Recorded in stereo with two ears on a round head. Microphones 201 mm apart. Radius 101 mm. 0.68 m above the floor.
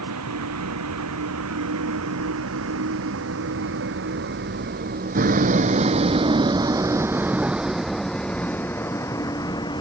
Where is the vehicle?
85° right; by 9.8 s 20° left (ahead or behind).